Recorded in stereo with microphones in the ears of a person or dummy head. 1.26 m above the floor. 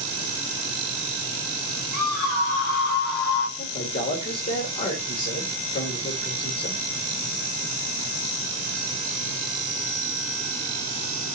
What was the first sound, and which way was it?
A scream, 55° left (ahead or behind).